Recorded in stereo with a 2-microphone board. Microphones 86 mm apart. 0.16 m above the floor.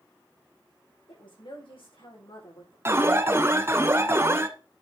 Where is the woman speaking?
80° left, 7.5 m.